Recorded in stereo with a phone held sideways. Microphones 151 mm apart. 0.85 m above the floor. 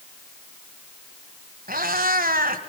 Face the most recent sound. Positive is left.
turn(degrees=-75)  # may be behind; listen again after turning